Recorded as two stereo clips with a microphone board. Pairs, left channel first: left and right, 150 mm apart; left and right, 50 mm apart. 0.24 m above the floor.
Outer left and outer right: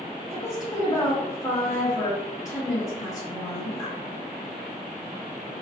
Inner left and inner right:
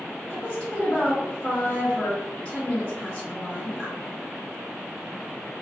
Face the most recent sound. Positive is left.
turn(degrees=20)  # may be behind; listen again after turning